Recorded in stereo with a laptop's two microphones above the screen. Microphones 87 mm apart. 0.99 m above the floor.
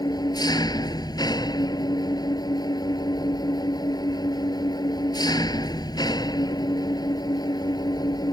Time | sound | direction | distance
0.0 | an engine running | 55° left (ahead or behind) | ?